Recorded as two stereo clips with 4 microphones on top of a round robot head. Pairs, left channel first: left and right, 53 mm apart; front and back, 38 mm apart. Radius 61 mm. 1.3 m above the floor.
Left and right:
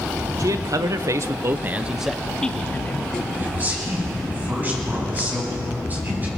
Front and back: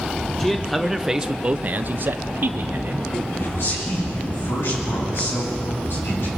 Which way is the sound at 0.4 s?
80° right.